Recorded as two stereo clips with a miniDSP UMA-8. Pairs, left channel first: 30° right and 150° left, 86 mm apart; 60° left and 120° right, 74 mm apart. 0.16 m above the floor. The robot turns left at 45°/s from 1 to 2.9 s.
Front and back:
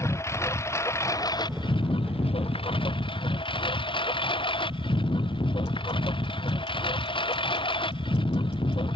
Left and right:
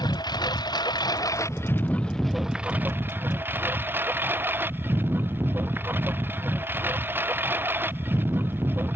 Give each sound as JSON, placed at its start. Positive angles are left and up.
{"t": 0.0, "sound": "a lawn mower", "azimuth_deg": 30}